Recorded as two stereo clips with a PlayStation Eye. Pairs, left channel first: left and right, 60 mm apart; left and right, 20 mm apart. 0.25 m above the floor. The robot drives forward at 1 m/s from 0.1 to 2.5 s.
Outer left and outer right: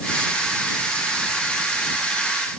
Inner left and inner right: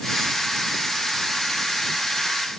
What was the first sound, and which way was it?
Only background noise.